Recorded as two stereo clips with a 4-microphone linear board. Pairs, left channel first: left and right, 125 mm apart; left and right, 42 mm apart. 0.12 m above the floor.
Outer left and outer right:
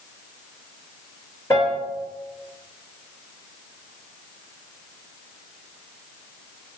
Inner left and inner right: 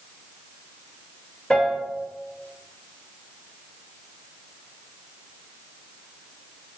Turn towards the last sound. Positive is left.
turn(degrees=25)  # may be behind; listen again after turning